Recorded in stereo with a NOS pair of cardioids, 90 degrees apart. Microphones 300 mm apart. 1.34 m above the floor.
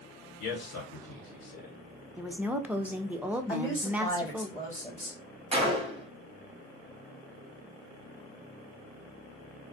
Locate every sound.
0.4 s a man speaking: 65° left, 1.2 m
2.2 s a woman speaking: 5° right, 0.5 m
3.5 s a woman speaking: 10° left, 1.1 m
5.5 s a gunshot: 20° right, 0.8 m